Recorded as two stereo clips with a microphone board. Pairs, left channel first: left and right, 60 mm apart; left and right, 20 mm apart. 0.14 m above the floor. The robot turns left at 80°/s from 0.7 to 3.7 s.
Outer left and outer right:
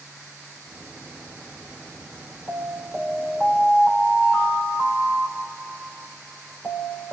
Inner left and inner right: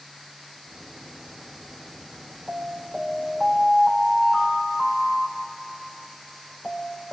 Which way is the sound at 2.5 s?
80° left.